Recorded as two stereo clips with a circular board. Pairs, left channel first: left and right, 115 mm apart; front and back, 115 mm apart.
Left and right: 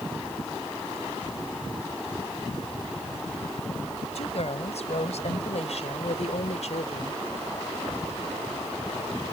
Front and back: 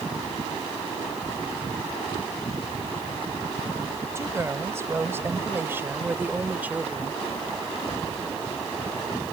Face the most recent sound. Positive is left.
turn(degrees=100)